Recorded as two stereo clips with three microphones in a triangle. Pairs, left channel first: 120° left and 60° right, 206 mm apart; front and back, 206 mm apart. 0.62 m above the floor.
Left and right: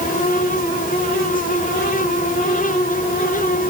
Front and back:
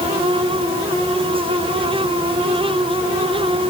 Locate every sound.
Only background noise.